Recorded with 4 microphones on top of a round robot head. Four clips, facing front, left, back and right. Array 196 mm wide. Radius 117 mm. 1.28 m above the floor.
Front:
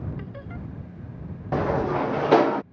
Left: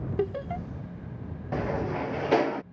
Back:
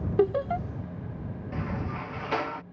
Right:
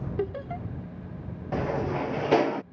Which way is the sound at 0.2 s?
175° left.